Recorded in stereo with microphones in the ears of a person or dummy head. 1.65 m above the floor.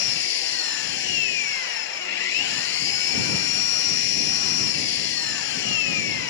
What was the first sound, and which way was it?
An engine running, 65° left (ahead or behind).